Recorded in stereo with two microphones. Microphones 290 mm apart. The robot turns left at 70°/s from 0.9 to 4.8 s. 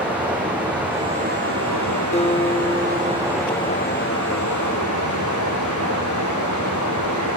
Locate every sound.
0.0 s running water: 5° right, 5 m; by 7.4 s 80° left, 5 m
2.1 s a guitar: 25° left (ahead or behind), 0.6 m; by 3.9 s 25° right (ahead or behind), 0.6 m